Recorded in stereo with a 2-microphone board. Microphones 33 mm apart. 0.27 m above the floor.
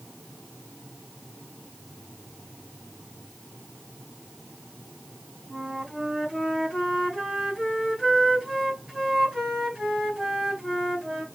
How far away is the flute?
About 2.5 m.